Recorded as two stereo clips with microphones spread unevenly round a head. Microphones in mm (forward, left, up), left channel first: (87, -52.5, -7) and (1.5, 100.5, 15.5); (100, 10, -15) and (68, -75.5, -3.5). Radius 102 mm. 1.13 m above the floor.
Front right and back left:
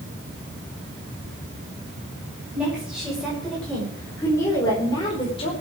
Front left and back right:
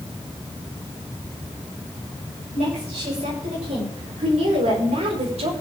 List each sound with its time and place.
2.5 s a woman speaking: 155° right, 6 m; by 5.5 s 125° right, 4.5 m